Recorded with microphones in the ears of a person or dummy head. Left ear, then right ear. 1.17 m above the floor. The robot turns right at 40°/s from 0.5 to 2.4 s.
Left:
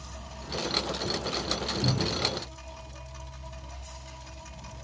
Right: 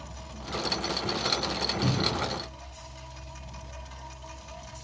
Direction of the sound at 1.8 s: 20° right (ahead or behind).